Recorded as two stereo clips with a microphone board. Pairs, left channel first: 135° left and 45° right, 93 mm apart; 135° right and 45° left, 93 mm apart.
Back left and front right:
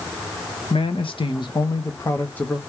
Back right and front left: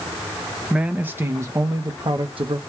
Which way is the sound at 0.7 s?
125° left.